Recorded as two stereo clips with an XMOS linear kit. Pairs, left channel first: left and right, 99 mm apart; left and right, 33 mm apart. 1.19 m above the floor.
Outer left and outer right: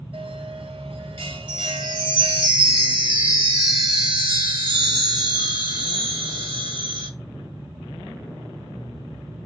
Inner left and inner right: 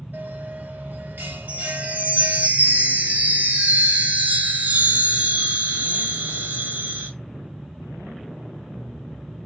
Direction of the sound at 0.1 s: 80° right.